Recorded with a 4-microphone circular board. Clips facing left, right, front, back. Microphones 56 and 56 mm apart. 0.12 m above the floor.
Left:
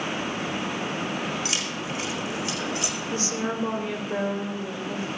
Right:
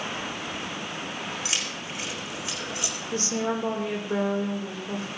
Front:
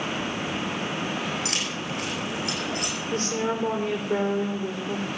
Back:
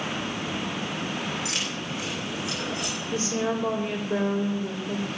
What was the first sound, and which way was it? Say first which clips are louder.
Keys jangling: left 3 dB, front 1 dB; 25° right.